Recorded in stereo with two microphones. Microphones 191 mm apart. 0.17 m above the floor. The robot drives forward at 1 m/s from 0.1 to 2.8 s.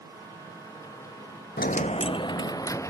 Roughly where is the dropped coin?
Left.